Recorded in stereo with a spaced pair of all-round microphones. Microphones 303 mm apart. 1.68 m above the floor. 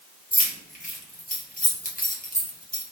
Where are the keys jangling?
25° left (ahead or behind), 1.2 m.